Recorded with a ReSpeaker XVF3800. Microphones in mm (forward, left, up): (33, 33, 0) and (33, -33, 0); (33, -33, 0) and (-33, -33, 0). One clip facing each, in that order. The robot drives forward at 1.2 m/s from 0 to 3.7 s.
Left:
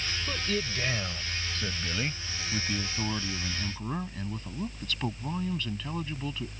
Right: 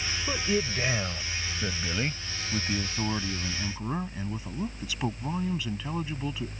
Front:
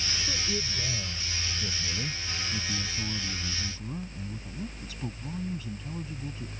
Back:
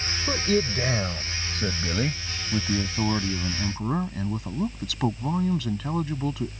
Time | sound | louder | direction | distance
0.3 | a man speaking | right 5 dB, back 14 dB | 160° right | ?